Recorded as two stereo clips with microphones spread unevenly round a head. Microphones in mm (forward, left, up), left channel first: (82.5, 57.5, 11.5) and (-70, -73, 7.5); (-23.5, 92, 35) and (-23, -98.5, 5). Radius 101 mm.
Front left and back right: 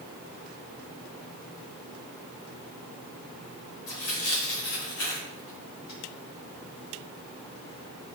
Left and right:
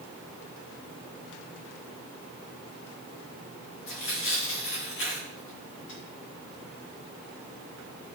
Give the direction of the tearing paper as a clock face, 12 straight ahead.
10 o'clock.